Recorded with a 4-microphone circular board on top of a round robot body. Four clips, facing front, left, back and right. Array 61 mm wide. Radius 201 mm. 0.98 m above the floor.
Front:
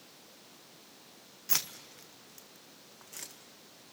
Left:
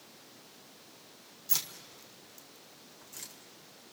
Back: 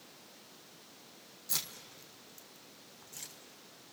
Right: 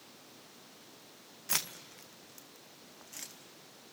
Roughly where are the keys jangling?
Ahead right.